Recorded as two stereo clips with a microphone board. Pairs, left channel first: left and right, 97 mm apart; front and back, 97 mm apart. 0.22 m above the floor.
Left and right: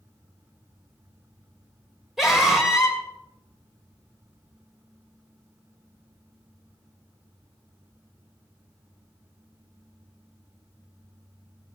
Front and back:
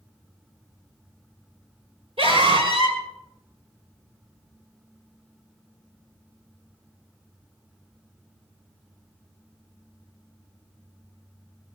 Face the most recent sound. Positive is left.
turn(degrees=180)